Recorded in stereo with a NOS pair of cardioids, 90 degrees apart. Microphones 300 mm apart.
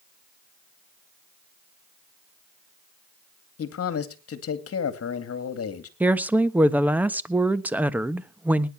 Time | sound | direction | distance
3.6 | a man speaking | 50° left | 2.5 m
6.0 | a woman speaking | 5° right | 1.1 m